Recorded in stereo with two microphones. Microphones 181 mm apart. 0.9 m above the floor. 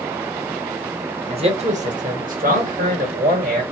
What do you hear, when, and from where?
1.3 s a man speaking: 35° right (ahead or behind), 1.3 m; by 3.6 s 60° right (ahead or behind), 2 m